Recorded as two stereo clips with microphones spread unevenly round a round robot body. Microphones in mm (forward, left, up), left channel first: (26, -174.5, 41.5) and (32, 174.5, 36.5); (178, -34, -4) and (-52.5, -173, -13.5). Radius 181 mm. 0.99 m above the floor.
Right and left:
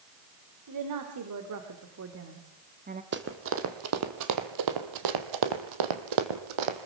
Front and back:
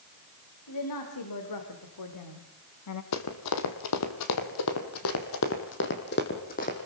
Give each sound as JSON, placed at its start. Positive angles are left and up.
{"t": 0.7, "sound": "a woman speaking", "azimuth_deg": 50, "distance_m": 3.5}
{"t": 3.1, "sound": "running footsteps", "azimuth_deg": 30, "distance_m": 2.5}